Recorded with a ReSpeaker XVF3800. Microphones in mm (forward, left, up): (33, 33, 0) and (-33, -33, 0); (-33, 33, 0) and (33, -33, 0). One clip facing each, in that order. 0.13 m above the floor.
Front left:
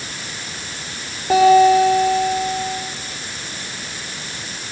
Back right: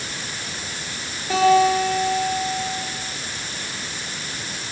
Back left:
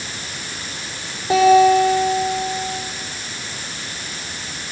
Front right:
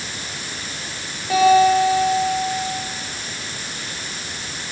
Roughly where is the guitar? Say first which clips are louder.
Front left 5 dB, back left 2 dB; left.